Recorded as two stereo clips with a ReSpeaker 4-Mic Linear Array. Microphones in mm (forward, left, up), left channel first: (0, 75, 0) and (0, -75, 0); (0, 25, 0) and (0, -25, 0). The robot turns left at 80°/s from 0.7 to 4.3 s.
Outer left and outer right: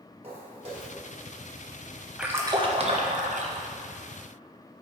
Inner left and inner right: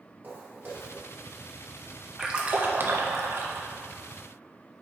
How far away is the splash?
About 0.7 m.